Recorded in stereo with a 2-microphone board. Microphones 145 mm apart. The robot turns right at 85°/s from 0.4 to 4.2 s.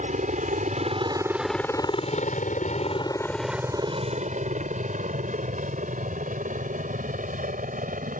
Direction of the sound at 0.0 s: 60° right (ahead or behind).